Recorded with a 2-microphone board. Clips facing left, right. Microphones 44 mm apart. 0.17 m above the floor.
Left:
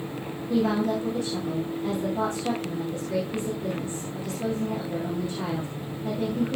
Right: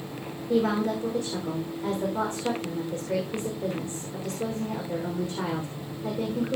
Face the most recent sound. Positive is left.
turn(degrees=-40)  # may be behind; listen again after turning